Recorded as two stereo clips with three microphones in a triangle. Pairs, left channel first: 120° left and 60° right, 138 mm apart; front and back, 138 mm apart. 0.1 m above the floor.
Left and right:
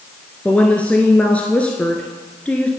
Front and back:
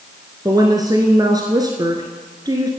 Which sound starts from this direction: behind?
A woman speaking, at 0.5 s.